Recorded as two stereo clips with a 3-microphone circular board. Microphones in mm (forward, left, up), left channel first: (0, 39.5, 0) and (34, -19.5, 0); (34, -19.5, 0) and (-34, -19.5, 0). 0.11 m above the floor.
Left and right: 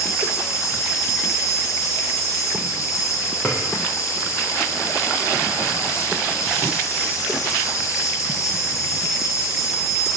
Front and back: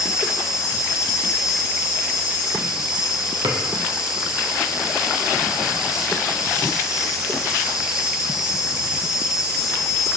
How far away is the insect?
About 0.8 m.